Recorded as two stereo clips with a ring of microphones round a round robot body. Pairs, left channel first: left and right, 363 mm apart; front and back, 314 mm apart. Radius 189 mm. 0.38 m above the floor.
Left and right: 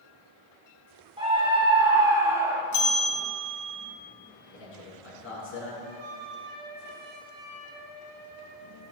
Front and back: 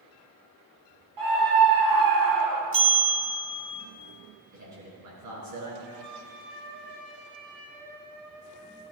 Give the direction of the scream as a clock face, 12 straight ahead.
6 o'clock.